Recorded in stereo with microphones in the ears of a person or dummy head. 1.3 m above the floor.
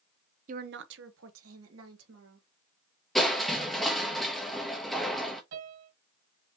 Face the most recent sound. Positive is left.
turn(degrees=-65)  # may be behind; listen again after turning